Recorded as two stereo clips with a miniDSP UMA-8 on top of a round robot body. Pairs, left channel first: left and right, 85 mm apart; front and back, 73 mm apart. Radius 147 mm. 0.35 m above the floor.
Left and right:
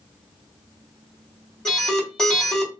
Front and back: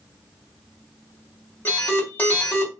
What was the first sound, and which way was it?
An alarm, 15° left.